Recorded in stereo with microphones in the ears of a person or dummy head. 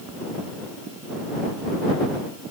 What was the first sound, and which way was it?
Only background noise.